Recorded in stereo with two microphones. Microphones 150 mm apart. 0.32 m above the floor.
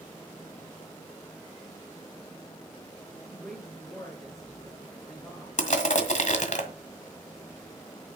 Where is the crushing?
60° left (ahead or behind), 1.7 m.